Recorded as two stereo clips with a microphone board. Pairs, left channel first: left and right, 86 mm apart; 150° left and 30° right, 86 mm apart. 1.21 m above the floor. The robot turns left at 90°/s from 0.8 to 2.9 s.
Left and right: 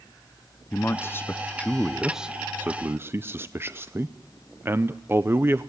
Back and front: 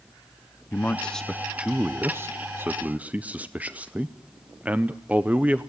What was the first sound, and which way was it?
A man speaking, 110° left.